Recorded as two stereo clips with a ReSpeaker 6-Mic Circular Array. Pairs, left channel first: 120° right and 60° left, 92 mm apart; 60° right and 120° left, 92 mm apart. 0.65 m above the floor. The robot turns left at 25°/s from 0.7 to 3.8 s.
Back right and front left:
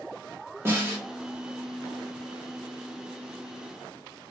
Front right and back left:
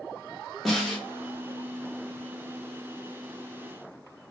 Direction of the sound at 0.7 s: 30° left.